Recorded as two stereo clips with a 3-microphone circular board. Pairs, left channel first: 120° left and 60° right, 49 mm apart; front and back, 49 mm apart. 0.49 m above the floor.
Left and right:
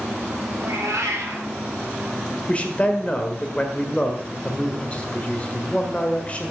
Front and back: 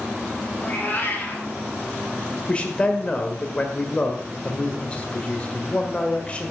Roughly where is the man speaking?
Ahead left.